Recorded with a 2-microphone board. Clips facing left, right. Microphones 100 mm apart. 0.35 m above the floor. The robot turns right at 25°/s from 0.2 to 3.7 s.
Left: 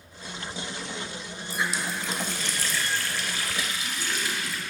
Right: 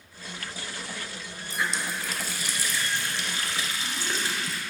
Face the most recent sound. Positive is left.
turn(degrees=-135)